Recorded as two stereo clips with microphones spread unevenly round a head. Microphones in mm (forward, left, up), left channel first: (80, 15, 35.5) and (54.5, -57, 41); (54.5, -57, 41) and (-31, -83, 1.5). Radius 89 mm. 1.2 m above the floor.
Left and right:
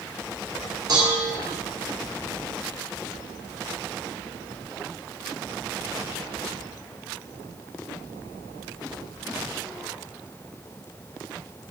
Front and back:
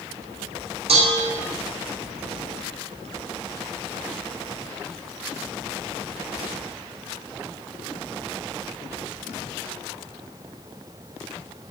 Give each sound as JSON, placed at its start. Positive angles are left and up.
{"t": 0.9, "sound": "dishes clattering", "azimuth_deg": -170, "distance_m": 2.5}